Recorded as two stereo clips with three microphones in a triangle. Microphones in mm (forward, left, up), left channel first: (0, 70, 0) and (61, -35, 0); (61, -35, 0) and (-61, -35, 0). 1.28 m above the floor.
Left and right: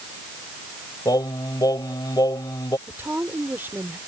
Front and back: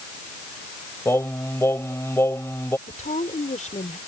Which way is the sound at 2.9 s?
15° left.